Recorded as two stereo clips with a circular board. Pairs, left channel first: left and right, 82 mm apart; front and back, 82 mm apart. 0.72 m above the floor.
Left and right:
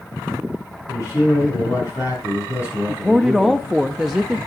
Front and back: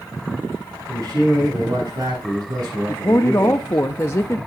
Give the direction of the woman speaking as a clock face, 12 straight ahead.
12 o'clock.